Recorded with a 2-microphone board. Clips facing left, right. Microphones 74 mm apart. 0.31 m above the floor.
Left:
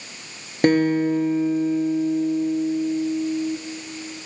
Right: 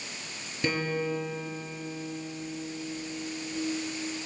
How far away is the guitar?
About 1.4 m.